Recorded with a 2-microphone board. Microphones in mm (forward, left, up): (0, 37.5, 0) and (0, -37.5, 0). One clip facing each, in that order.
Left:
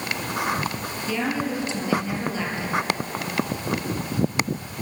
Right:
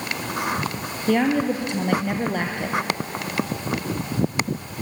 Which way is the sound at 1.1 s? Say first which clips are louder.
Right 7 dB; 55° right (ahead or behind).